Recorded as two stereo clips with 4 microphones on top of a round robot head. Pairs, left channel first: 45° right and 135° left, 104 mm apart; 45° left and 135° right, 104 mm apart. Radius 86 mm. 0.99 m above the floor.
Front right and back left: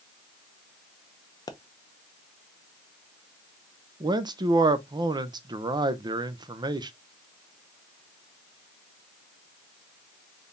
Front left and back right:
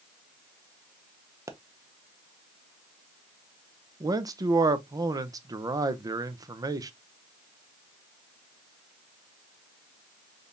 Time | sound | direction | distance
1.5 | a pop | 85° right | 0.8 m
4.0 | a man speaking | 175° left | 0.6 m